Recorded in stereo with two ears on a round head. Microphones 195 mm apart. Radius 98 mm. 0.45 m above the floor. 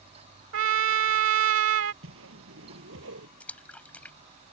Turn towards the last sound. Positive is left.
turn(degrees=5)  # may be behind; listen again after turning